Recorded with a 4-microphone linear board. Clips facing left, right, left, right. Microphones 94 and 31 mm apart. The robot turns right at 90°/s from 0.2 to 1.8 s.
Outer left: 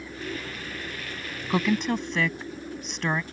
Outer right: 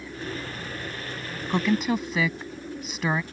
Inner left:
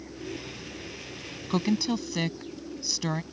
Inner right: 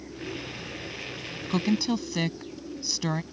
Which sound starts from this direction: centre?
A woman speaking, at 1.5 s.